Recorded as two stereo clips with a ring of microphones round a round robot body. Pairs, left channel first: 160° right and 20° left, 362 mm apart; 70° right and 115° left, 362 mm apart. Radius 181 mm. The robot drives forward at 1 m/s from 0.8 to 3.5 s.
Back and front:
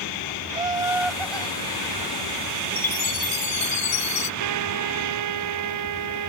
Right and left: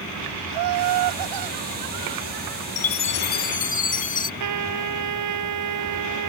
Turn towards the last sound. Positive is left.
turn(degrees=70)